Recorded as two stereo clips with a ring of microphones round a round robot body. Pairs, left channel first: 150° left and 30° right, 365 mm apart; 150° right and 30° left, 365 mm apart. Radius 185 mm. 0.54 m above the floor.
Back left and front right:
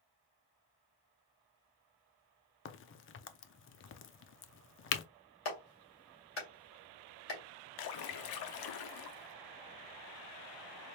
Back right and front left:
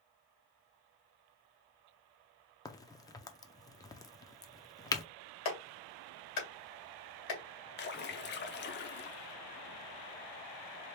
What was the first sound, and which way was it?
A crack, 140° left.